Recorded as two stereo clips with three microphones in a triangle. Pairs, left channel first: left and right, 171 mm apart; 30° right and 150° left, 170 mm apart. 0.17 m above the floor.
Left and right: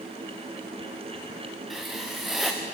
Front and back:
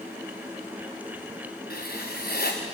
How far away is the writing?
About 3.5 m.